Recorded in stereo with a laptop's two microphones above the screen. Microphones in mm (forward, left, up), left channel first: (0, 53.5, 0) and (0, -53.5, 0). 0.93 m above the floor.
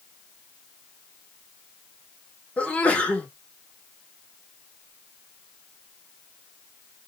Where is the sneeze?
15° left (ahead or behind), 1.0 m.